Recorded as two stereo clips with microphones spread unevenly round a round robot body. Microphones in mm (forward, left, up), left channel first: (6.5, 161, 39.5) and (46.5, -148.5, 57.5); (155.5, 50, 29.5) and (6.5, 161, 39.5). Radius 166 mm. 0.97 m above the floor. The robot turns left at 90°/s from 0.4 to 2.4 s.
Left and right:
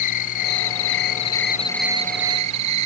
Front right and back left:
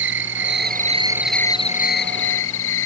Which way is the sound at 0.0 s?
135° left.